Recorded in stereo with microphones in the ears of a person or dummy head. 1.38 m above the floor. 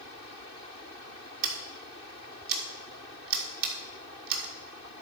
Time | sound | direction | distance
1.4 | scissors | 55° right (ahead or behind) | 1.9 m